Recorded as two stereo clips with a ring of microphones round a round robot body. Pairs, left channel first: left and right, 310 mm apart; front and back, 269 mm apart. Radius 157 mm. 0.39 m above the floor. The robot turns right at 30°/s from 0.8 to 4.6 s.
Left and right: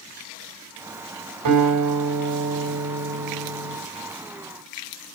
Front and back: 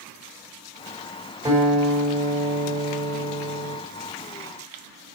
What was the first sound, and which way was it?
A guitar, 105° right.